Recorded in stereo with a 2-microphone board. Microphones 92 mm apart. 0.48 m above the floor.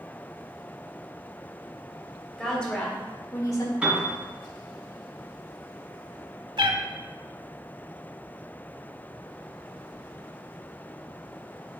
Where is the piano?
10° right (ahead or behind), 2.5 m.